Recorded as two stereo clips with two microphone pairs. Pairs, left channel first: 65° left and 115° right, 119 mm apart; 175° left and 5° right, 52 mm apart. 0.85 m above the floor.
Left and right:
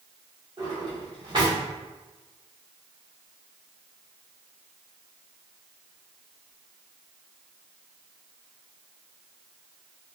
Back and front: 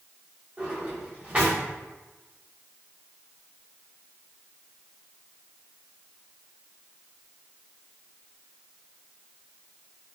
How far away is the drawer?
About 1.5 m.